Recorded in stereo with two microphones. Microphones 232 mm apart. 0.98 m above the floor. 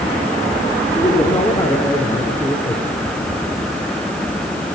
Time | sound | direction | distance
0.9 | a man speaking | 15° left (ahead or behind) | 3 m